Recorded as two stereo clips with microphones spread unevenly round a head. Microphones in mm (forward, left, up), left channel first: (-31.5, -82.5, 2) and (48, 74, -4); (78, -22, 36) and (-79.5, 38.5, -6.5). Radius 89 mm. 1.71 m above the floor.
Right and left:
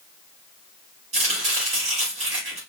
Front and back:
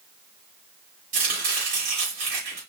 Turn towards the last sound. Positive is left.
turn(degrees=120)